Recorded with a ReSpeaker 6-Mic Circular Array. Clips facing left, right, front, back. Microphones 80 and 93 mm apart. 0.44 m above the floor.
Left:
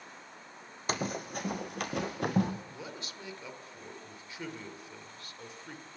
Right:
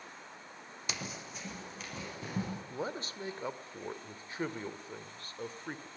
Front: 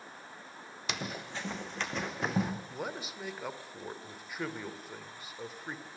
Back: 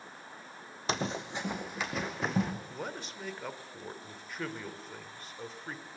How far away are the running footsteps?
About 1.4 m.